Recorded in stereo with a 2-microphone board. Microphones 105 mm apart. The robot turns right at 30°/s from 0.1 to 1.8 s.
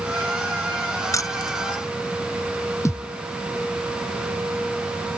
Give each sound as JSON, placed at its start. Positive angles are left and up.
{"t": 1.1, "sound": "keys jangling", "side_deg": 30}
{"t": 2.9, "sound": "a thud", "side_deg": 30}